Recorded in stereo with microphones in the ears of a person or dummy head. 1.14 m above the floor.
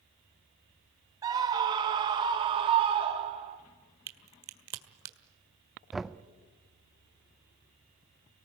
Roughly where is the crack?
Right.